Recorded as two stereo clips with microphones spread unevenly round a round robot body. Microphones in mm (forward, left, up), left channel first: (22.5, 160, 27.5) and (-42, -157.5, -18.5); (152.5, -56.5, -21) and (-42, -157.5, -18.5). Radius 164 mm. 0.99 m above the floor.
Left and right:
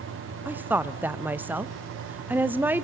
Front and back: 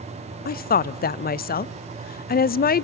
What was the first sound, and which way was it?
A woman speaking, 20° right.